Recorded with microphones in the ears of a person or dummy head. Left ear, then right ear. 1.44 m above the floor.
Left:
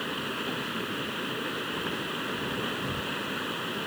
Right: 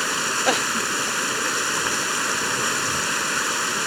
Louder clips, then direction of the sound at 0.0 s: Right 11 dB; 55° right (ahead or behind).